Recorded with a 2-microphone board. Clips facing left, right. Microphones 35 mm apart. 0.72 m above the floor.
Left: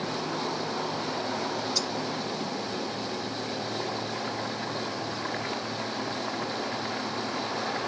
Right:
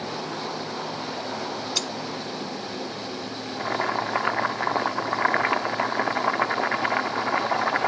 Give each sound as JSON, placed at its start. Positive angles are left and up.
{"t": 1.8, "sound": "cutlery clinking", "side_deg": -60}
{"t": 3.6, "sound": "boiling", "side_deg": -60}